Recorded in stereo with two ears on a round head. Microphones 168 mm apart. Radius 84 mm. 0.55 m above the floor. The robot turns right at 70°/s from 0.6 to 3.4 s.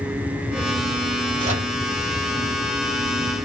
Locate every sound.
1.4 s a microwave: 45° right (ahead or behind), 2 m; by 1.8 s 20° right (ahead or behind), 2 m